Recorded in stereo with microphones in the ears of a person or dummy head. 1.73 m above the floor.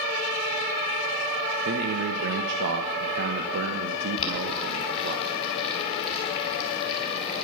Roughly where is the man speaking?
Right.